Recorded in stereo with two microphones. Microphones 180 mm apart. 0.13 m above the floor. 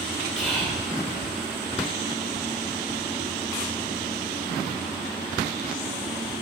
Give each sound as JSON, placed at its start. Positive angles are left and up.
{"t": 0.4, "sound": "whispering", "side_deg": 0, "distance_m": 4.5}